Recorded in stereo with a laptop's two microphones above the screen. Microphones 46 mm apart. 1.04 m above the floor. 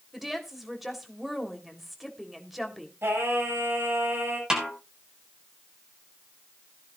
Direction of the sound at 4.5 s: 15° right (ahead or behind).